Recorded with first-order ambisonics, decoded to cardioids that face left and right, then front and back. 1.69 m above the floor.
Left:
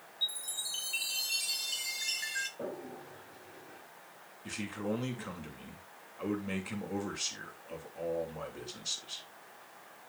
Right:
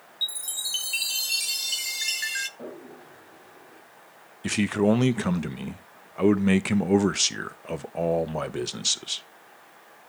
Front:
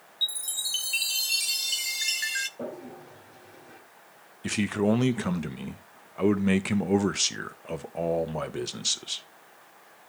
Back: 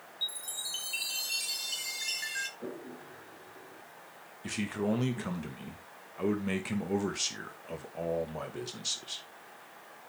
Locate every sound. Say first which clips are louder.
0.2 s a chime: right 6 dB, front 7 dB; 50° right, 0.6 m
2.6 s a toilet flushing: right 1 dB, front 5 dB; 5° left, 3.5 m
4.4 s a man speaking: right 14 dB, front 7 dB; 65° right, 0.7 m